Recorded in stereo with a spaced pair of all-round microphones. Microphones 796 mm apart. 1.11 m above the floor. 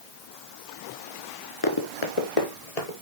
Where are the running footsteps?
30° left (ahead or behind), 1.2 m; by 2.9 s 55° left (ahead or behind), 1.8 m.